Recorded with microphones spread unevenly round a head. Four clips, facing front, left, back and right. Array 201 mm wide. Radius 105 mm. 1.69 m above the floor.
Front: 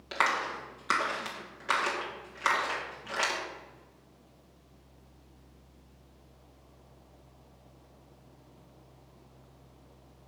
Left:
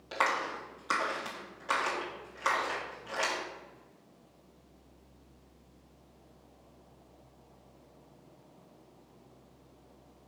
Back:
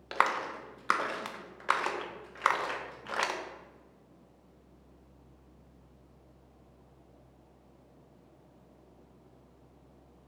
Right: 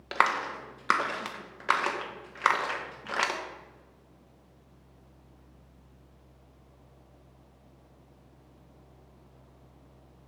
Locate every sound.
0.1 s a clap: 100° right, 1.5 m